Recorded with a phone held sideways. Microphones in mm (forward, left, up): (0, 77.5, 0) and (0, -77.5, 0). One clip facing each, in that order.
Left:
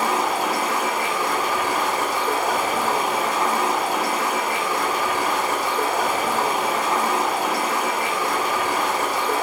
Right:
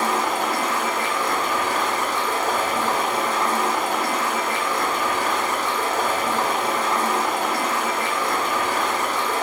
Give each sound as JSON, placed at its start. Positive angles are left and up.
{"t": 0.0, "sound": "running water", "side_deg": 10, "distance_m": 0.7}